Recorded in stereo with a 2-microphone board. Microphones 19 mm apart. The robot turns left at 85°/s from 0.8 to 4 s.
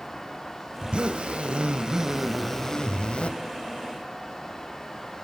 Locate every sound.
0.8 s a zipper: 55° right, 0.7 m; by 3.3 s 90° left, 0.7 m